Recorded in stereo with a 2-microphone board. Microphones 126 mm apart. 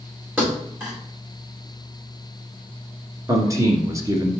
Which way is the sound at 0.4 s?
15° right (ahead or behind).